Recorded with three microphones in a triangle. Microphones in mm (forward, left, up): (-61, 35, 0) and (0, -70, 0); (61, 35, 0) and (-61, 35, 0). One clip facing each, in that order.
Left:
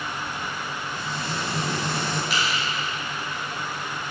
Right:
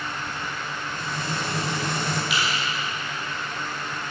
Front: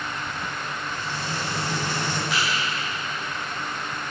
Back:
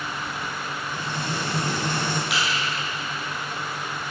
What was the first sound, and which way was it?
Frying, 150° right.